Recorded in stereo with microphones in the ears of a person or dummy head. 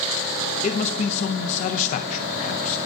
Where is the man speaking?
40° left (ahead or behind), 0.5 m.